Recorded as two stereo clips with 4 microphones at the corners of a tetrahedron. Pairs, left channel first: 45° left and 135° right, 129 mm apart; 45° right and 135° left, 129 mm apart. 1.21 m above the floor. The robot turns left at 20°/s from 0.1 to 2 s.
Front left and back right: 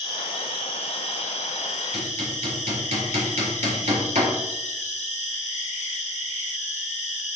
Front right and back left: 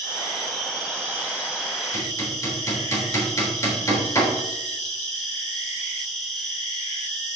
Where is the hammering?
110° right, 3.5 m.